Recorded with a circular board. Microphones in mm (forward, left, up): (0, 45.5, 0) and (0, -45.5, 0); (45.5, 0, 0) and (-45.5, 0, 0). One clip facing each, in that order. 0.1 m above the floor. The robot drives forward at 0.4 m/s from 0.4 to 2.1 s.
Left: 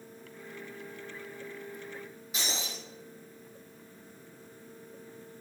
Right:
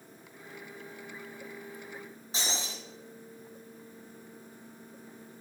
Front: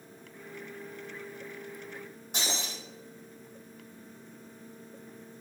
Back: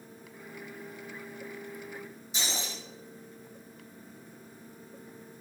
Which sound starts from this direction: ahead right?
Breaking glass, at 2.3 s.